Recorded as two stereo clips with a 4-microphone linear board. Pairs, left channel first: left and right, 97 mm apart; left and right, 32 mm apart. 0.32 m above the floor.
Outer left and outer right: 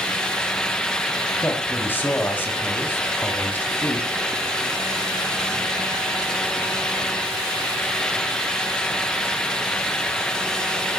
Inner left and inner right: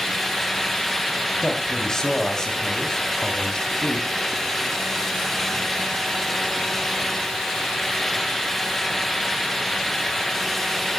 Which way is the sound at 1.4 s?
25° left (ahead or behind).